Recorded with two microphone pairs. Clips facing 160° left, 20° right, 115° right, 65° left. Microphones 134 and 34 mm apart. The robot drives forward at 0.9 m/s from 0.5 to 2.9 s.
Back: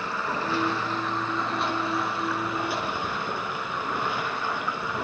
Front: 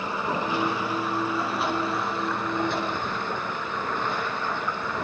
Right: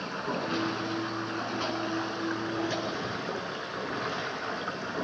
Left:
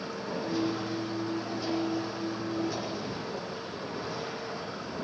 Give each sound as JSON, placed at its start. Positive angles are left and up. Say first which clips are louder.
{"t": 0.0, "sound": "running water", "louder": "front 2 dB, right 2 dB", "azimuth_deg": -90, "distance_m": 4.0}